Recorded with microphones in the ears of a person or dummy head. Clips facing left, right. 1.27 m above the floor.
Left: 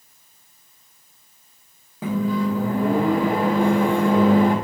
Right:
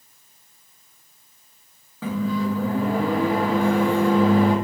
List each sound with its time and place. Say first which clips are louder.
2.0 s a microwave: left 2 dB; 15° left (ahead or behind), 0.6 m